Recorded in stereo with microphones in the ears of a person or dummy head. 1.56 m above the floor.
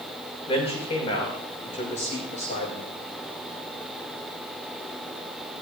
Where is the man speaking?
30° left (ahead or behind), 6.5 m; by 2.9 s 40° left (ahead or behind), 5.5 m.